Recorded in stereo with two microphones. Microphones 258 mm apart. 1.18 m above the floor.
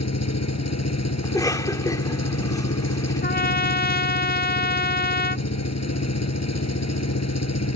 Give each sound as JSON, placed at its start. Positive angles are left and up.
{"t": 0.0, "sound": "an engine running", "side_deg": 85}
{"t": 1.2, "sound": "a cough", "side_deg": 15}
{"t": 3.2, "sound": "a trumpet", "side_deg": 35}